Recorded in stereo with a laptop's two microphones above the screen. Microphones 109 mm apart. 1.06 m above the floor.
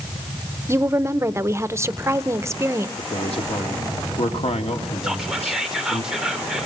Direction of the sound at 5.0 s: 5° right (ahead or behind).